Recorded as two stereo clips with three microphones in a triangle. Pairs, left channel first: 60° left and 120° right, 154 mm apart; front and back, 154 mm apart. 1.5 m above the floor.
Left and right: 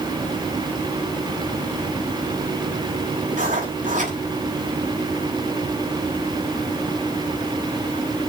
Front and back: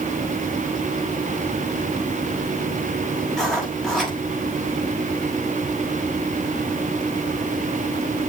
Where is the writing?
85° right, 5 m.